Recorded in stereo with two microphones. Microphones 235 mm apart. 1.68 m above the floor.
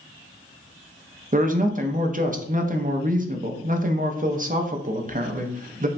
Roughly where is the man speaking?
Right.